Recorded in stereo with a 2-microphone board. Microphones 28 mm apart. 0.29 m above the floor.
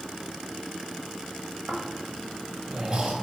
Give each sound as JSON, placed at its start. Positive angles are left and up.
{"t": 1.7, "sound": "snoring", "side_deg": -30, "distance_m": 1.7}